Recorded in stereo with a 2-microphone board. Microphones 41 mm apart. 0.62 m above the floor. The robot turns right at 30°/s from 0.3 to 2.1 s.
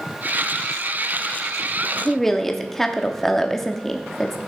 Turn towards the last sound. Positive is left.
turn(degrees=10)  # may be behind; listen again after turning